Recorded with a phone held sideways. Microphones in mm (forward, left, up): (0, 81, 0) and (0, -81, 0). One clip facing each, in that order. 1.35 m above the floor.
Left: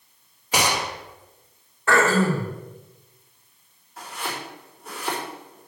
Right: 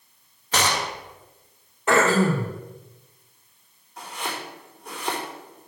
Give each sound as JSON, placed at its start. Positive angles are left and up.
{"t": 0.5, "sound": "a gunshot", "side_deg": 10, "distance_m": 0.7}
{"t": 1.9, "sound": "throat clearing", "side_deg": -20, "distance_m": 1.2}
{"t": 4.0, "sound": "chopping", "side_deg": 5, "distance_m": 3.5}